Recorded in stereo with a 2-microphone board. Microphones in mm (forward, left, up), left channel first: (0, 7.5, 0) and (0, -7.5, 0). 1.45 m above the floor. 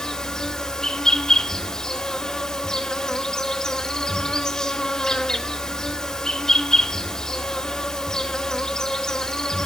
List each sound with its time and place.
0.0 s an insect: 50° left (ahead or behind), 1.4 m